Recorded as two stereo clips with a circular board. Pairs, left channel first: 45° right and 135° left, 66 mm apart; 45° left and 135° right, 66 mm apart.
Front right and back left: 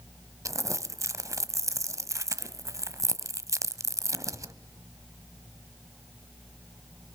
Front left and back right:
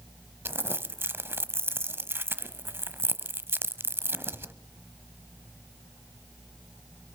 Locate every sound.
0.5 s crumpling: 170° left, 1.0 m